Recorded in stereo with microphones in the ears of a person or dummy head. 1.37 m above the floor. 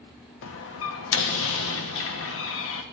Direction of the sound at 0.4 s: 70° left (ahead or behind).